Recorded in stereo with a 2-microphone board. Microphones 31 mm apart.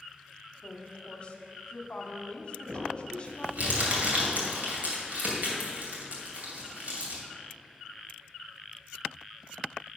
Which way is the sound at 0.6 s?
35° left (ahead or behind).